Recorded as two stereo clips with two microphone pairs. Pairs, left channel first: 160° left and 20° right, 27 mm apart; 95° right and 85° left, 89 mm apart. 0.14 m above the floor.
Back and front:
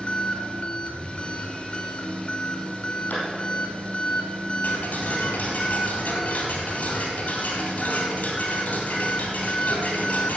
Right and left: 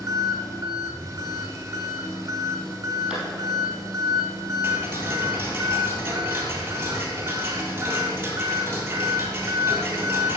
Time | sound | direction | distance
0.0 | an engine running | 135° left | 1.6 m
3.1 | a clap | 170° left | 4 m
4.6 | ticking | 150° left | 2 m